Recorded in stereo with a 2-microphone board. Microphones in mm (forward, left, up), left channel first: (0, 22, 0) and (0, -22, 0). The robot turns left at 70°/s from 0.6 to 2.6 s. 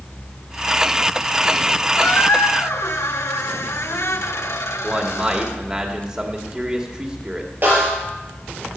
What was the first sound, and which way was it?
A squeak, 135° left.